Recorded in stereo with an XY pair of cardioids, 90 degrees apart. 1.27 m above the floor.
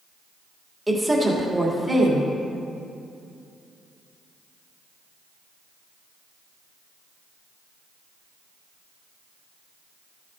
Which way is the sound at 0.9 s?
15° right.